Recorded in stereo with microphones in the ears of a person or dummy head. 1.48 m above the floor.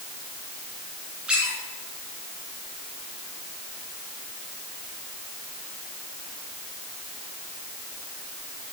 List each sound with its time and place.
1.3 s a squeak: 5° right (ahead or behind), 3.5 m